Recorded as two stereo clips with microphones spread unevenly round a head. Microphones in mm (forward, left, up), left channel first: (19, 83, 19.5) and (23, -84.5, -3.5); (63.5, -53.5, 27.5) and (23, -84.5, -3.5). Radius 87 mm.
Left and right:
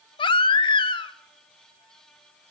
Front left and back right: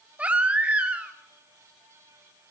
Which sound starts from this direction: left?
A baby crying, at 0.2 s.